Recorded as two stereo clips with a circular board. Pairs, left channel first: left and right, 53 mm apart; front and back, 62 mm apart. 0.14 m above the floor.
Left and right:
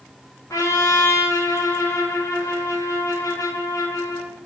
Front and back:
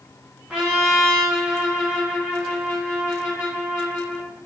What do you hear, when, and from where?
0.5 s a trumpet: 105° left, 3 m